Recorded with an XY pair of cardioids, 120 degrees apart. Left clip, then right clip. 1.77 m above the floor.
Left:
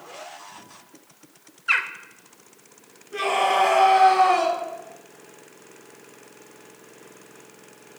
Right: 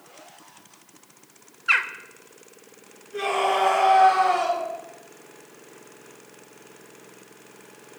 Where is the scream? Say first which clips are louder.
Left 2 dB; 45° left, 4.5 m.